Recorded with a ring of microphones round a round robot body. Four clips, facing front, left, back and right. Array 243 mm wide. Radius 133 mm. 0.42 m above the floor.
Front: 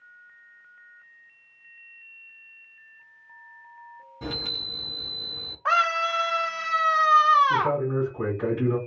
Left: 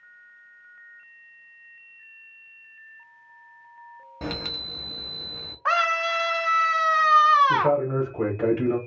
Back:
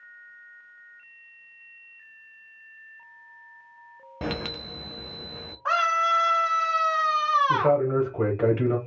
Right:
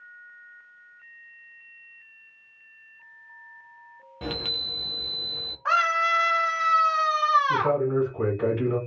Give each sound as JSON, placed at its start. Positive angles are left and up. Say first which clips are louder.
{"t": 4.2, "sound": "a chime", "louder": "left 1 dB, back 4 dB", "azimuth_deg": 170, "distance_m": 0.5}
{"t": 5.7, "sound": "a scream", "louder": "right 1 dB, even", "azimuth_deg": 65, "distance_m": 1.1}
{"t": 7.5, "sound": "a man speaking", "louder": "left 1 dB, back 3 dB", "azimuth_deg": 165, "distance_m": 1.3}